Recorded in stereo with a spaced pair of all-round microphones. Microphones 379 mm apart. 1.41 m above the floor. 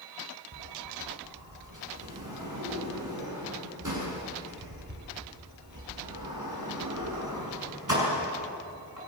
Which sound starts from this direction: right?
A sliding door, at 0.5 s.